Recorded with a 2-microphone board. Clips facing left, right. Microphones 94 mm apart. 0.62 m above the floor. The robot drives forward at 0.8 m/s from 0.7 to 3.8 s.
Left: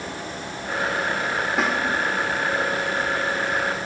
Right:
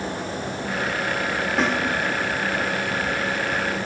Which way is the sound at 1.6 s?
5° left (ahead or behind).